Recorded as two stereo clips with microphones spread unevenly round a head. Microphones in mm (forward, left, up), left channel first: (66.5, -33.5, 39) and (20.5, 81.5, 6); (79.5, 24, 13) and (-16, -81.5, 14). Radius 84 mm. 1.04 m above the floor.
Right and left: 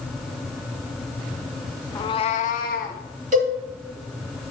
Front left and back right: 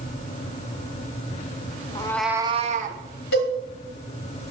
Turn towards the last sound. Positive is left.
turn(degrees=80)